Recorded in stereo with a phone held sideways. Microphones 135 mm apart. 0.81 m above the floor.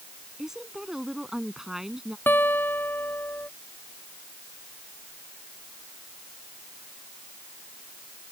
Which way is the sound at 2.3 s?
15° left (ahead or behind).